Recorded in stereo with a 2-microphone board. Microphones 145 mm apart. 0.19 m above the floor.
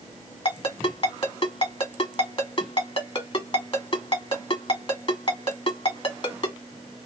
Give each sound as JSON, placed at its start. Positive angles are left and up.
{"t": 0.5, "sound": "a ringtone", "side_deg": 40, "distance_m": 1.2}